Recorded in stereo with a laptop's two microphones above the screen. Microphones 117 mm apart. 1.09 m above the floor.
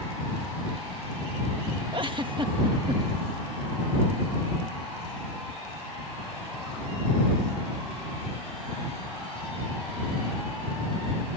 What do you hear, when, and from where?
1.9 s a giggle: 45° right (ahead or behind)